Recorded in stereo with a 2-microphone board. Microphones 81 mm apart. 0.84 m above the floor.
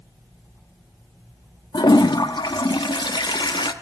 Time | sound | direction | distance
1.7 | a toilet flushing | 65° left (ahead or behind) | 0.6 m